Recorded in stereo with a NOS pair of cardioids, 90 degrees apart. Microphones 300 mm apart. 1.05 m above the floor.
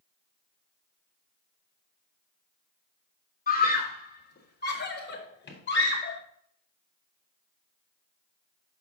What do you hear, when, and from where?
3.5 s a scream: 30° left, 3 m; by 6.2 s 40° left, 5 m